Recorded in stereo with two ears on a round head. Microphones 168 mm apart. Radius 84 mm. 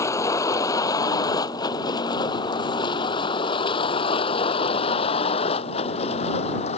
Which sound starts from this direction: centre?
A vehicle, at 0.0 s.